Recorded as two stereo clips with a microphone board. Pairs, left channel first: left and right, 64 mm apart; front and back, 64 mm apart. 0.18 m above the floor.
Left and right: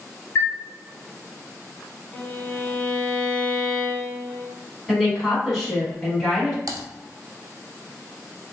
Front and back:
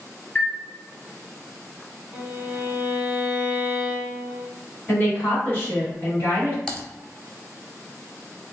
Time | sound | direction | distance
0.3 | a chime | 60° left | 0.6 m
2.1 | a violin | 140° left | 0.8 m
4.9 | a woman speaking | 5° left | 1.7 m
6.7 | typing on a keyboard | 80° right | 0.6 m